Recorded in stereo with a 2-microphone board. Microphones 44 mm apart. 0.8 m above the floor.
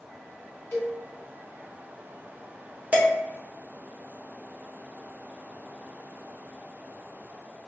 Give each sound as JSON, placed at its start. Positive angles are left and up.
{"t": 0.7, "sound": "a cowbell", "side_deg": 65, "distance_m": 1.1}
{"t": 2.9, "sound": "dishes clattering", "side_deg": -35, "distance_m": 0.9}